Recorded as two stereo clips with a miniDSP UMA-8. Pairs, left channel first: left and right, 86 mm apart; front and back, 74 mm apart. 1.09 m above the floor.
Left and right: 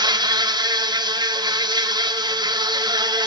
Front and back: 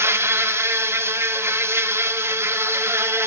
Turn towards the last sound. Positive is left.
turn(degrees=-125)